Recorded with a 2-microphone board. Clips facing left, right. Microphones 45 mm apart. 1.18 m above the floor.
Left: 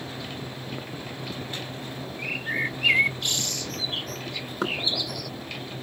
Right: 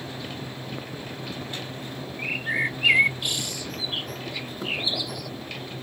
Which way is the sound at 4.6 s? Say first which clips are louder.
Left 3 dB; 70° left (ahead or behind).